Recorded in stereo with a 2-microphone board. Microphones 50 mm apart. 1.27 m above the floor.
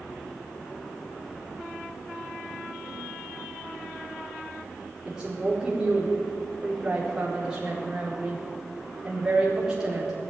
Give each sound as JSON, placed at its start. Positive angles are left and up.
{"t": 5.0, "sound": "a woman speaking", "side_deg": -10, "distance_m": 4.0}